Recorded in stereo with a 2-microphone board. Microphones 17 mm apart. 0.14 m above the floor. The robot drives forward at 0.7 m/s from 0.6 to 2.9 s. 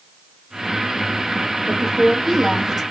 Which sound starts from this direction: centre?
A woman speaking, at 1.7 s.